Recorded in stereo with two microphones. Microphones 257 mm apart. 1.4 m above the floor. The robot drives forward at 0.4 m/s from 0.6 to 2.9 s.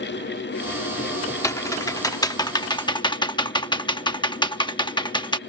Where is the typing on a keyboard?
10° left (ahead or behind); by 5.4 s 20° left (ahead or behind).